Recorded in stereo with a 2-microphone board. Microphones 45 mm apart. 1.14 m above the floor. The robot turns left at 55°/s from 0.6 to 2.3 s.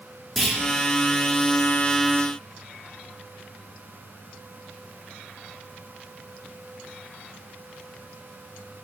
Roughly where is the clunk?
Centre.